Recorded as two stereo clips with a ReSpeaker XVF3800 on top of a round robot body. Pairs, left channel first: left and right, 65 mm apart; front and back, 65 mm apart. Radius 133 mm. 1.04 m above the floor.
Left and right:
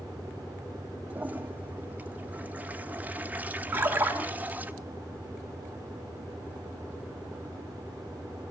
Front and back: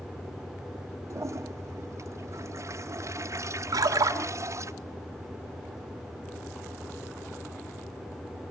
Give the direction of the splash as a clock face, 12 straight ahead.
5 o'clock.